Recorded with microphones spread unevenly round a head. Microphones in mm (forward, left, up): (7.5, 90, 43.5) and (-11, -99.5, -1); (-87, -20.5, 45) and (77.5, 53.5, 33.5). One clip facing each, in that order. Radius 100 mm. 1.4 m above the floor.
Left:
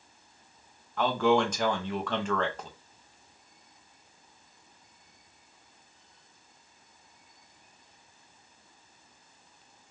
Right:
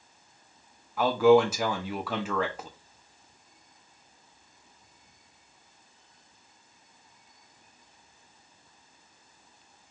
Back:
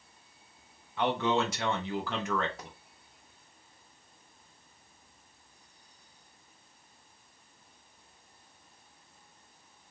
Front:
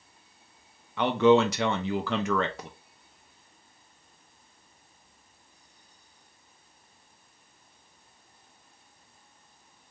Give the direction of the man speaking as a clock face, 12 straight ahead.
12 o'clock.